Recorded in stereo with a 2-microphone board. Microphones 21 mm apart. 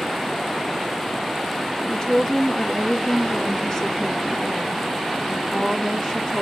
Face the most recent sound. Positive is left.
turn(degrees=30)  # may be behind; listen again after turning